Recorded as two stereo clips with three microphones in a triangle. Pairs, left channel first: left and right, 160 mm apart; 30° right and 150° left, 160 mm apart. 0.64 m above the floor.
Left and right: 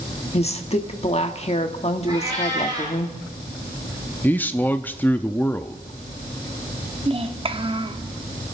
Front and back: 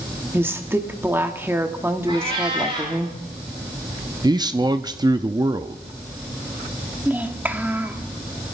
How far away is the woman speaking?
About 1.2 m.